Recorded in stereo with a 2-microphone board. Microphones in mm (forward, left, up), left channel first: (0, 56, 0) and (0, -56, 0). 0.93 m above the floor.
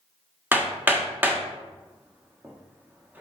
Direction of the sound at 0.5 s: 20° right (ahead or behind).